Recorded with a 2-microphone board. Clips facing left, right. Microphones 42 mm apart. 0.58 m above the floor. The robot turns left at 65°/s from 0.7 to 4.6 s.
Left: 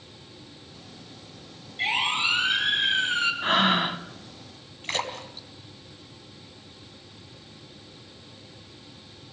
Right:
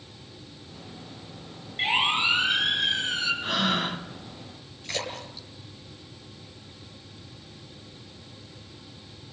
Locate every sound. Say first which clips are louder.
1.8 s a siren: right 1 dB; 40° right (ahead or behind), 6 m; by 3.3 s 50° left (ahead or behind), 4.5 m
3.4 s breathing: left 4 dB; 45° left, 1.1 m; by 4.0 s 5° left, 1.1 m
4.8 s a splash: left 3 dB; 45° left (ahead or behind), 3.5 m